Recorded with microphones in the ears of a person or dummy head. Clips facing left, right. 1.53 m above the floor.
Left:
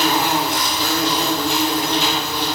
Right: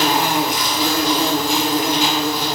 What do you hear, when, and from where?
0.0 s an insect: 15° right (ahead or behind), 5.5 m